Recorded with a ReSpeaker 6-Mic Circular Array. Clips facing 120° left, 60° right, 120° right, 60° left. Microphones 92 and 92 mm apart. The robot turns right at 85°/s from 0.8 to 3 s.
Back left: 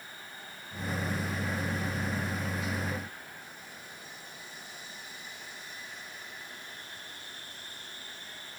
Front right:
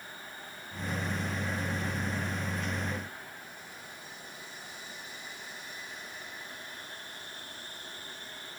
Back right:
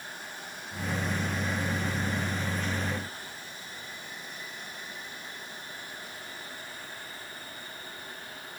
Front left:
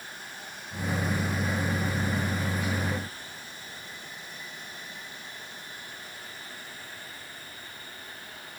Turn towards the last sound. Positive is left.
No sound to turn to.